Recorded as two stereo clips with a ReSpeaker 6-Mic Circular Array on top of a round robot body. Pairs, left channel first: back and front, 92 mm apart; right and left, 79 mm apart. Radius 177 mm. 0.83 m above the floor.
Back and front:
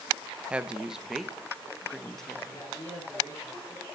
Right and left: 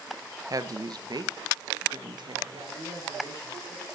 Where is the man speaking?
120° left, 7.5 m.